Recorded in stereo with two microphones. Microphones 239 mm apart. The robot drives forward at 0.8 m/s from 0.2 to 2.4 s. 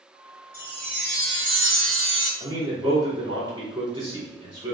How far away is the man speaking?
About 2.0 m.